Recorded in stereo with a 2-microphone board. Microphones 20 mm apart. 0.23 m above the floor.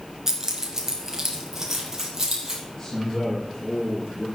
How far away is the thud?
I don't hear a thud.